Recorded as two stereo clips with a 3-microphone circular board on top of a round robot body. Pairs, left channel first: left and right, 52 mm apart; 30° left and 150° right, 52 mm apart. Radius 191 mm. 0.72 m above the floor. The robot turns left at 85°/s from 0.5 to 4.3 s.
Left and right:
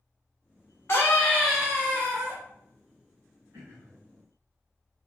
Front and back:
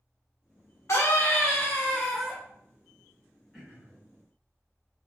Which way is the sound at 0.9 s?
55° left.